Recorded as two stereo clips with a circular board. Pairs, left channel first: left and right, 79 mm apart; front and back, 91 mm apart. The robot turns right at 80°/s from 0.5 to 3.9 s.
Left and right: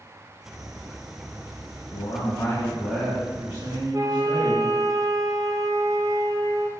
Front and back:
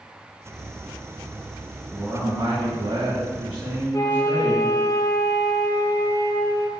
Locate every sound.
1.9 s a man speaking: 90° left, 4.5 m; by 4.7 s 115° right, 4.5 m
3.9 s a flute: 50° right, 1.3 m